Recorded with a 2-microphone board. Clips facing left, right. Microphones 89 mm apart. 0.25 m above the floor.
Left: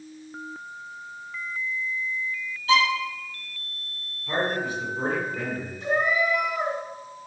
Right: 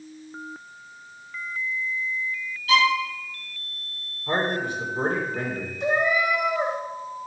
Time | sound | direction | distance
2.7 | a violin | 30° left (ahead or behind) | 1.7 m
4.3 | a man speaking | 50° right (ahead or behind) | 2.5 m
5.8 | a cat meowing | 75° right (ahead or behind) | 3 m